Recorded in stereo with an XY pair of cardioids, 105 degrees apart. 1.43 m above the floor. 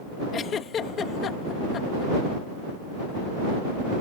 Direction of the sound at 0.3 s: 55° left.